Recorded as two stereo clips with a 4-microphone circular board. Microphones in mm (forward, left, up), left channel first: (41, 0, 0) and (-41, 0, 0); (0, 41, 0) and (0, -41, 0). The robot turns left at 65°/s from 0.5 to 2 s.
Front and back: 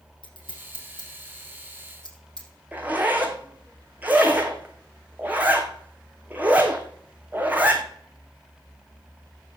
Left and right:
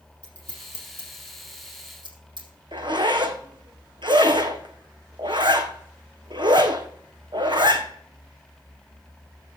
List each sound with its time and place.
0.2 s scissors: 15° left, 5 m; by 2.5 s 80° right, 5 m
2.7 s a zipper: 110° right, 1.6 m